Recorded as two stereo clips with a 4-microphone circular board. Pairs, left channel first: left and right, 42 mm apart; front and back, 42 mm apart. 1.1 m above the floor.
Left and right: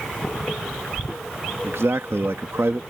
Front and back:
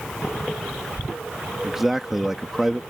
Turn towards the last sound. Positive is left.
turn(degrees=-100)